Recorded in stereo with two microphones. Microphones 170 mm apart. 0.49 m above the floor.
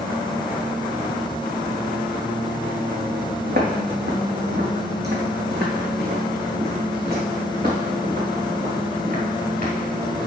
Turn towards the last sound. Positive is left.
turn(degrees=-50)  # may be behind; listen again after turning